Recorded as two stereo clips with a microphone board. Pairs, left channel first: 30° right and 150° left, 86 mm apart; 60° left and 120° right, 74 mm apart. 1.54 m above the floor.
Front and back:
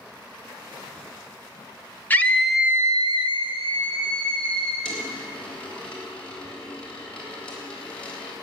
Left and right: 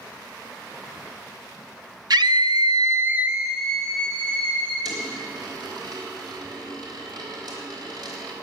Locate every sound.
2.1 s a scream: 100° right, 1.0 m; by 4.8 s 135° left, 2.5 m
4.8 s a dropped coin: 105° right, 3.5 m